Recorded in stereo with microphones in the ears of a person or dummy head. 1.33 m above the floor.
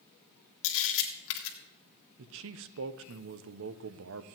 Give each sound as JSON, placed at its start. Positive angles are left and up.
{"t": 0.6, "sound": "a camera shutter", "side_deg": 70, "distance_m": 1.6}
{"t": 2.2, "sound": "a man speaking", "side_deg": -65, "distance_m": 0.7}